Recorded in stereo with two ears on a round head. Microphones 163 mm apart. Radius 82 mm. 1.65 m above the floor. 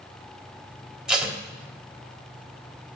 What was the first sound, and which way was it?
Tape being pulled, 5° right (ahead or behind).